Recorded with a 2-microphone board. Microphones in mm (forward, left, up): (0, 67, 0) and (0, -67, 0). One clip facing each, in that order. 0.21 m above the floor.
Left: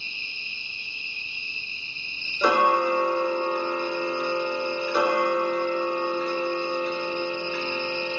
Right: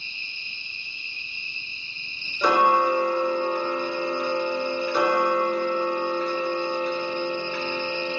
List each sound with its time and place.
0.0 s an insect: 10° left (ahead or behind), 3.5 m
2.4 s ticking: 5° left (ahead or behind), 2.5 m